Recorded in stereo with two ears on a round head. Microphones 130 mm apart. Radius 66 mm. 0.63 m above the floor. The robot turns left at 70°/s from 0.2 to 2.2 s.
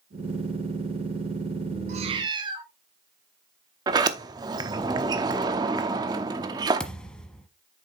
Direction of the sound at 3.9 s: 30° right (ahead or behind).